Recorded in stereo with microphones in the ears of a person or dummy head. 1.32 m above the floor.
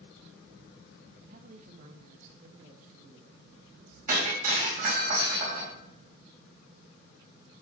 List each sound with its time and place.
1.3 s a woman speaking: 45° right (ahead or behind), 0.9 m; by 4.0 s 55° right (ahead or behind), 2.5 m
4.1 s breaking glass: 45° right (ahead or behind), 4.5 m